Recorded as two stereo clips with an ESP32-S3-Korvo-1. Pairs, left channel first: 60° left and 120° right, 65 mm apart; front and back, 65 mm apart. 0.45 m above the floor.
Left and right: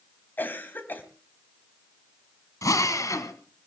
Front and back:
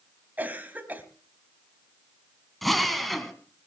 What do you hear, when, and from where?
0.4 s a cough: 115° left, 2.5 m
2.6 s a drill: 85° left, 2.0 m